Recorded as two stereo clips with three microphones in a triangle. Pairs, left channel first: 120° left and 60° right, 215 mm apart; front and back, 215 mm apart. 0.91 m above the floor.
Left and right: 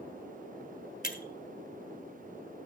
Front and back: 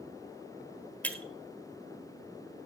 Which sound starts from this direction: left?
Breaking glass, at 1.0 s.